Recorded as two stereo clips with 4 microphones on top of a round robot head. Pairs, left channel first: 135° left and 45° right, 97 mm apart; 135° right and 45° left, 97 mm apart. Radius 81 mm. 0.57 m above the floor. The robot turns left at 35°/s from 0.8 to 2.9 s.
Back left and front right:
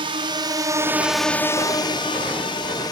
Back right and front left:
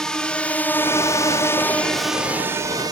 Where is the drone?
55° right; by 2.9 s 90° left.